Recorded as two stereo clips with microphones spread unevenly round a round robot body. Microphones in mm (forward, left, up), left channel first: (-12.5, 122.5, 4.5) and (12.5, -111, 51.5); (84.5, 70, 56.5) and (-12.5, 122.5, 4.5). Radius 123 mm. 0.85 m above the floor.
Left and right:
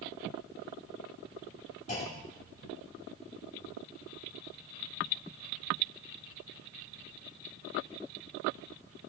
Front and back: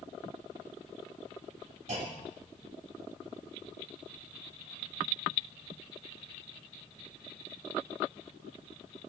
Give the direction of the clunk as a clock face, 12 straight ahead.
7 o'clock.